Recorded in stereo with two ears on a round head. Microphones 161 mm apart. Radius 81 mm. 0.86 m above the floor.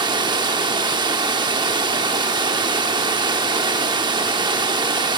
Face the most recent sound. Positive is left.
turn(degrees=-25)  # may be behind; listen again after turning